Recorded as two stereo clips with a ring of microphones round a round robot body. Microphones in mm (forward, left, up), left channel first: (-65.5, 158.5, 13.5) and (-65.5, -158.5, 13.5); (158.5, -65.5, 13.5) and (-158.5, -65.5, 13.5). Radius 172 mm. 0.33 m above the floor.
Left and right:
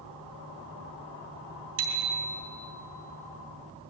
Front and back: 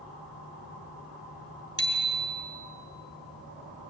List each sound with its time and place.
1.8 s a bicycle bell: 80° right, 3.5 m